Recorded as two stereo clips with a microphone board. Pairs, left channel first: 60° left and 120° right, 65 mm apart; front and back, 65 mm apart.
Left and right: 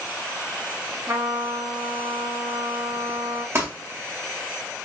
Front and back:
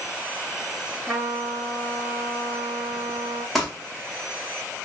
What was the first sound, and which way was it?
A trumpet, 75° right.